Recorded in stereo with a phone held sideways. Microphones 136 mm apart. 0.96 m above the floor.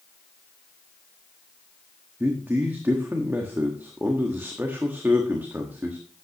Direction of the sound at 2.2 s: 15° right (ahead or behind).